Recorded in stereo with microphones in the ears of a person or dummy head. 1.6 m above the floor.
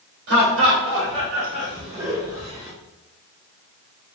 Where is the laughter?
70° right (ahead or behind), 1.1 m; by 2.7 s 30° right (ahead or behind), 1.1 m.